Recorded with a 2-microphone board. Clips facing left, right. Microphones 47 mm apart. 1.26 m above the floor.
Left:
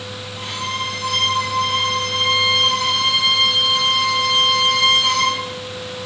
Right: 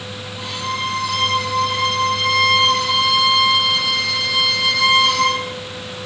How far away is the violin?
About 5 m.